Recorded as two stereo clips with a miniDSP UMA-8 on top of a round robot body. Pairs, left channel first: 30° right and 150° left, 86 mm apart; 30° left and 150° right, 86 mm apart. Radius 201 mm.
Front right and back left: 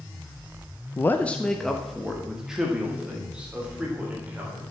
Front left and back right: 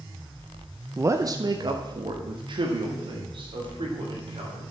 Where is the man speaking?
90° right, 0.7 m; by 4.6 s 135° right, 4 m.